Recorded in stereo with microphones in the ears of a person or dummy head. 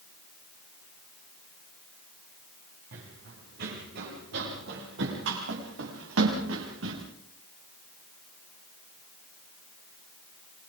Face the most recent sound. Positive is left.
turn(degrees=-80)